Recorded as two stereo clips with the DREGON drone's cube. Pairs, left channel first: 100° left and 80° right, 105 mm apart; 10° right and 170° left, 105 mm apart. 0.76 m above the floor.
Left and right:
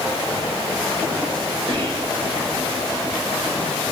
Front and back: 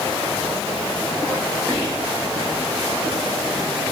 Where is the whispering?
60° right, 1.8 m.